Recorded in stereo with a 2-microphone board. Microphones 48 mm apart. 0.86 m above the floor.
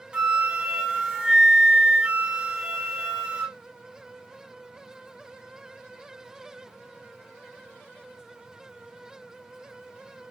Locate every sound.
0.1 s a flute: 20° right (ahead or behind), 0.9 m